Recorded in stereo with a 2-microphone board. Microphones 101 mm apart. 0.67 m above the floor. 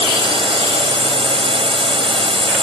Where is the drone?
60° right (ahead or behind).